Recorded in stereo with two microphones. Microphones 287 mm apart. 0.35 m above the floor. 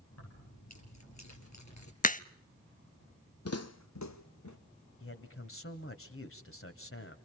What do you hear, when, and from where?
0.1 s keys jangling: 65° left (ahead or behind), 5 m; by 1.9 s 80° left, 4 m
2.0 s a crack: 30° left (ahead or behind), 0.5 m
3.5 s footsteps: 60° left (ahead or behind), 0.9 m; by 4.6 s 80° left, 1.7 m
5.0 s a man speaking: 50° left (ahead or behind), 2.0 m